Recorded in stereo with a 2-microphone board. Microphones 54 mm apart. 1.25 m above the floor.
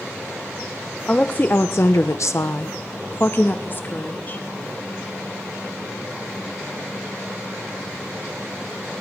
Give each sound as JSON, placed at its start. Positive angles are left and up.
{"t": 1.1, "sound": "a woman speaking", "side_deg": 25, "distance_m": 1.3}